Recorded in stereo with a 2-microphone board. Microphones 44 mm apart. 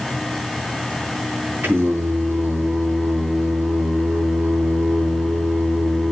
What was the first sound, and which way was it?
Singing, 65° right (ahead or behind).